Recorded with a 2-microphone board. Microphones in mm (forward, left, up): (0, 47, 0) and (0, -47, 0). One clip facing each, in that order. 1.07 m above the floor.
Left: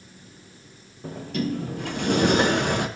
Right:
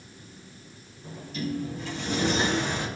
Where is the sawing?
I don't hear sawing.